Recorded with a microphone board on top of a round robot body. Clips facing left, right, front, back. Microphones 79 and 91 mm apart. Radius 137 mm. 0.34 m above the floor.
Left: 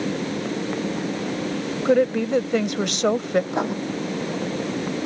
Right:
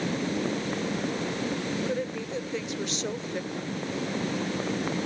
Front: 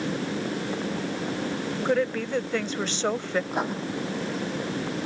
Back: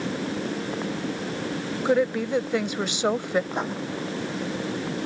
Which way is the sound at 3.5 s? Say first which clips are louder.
Left 10 dB, front 1 dB; 85° left.